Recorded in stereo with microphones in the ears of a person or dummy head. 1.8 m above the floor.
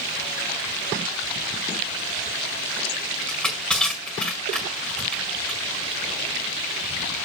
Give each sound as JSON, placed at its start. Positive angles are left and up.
{"t": 3.3, "sound": "crushing", "side_deg": 5, "distance_m": 5.0}